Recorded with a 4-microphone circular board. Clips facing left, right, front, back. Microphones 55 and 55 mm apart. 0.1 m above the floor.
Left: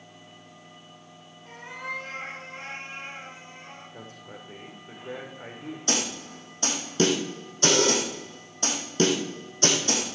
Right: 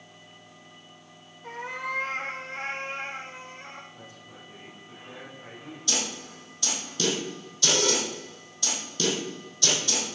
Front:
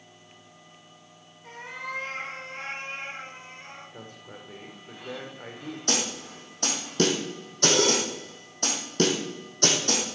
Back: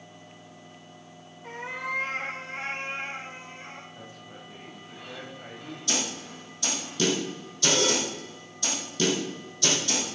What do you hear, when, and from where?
1.4 s a cat meowing: 110° right, 4 m; by 3.8 s 90° right, 5.5 m
3.9 s a man speaking: 40° left, 6 m
5.9 s a snare drum: 40° left, 3.5 m